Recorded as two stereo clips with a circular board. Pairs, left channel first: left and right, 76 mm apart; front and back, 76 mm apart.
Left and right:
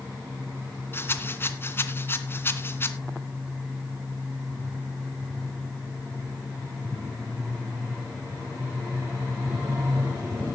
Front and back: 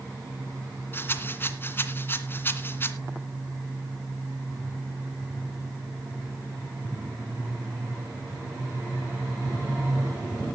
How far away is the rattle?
About 1.9 m.